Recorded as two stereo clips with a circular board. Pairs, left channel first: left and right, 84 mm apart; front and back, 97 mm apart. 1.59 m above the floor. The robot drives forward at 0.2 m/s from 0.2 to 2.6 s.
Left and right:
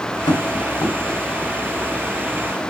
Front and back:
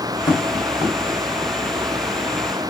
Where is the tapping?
110° left, 1.8 m; by 0.9 s 115° left, 1.9 m.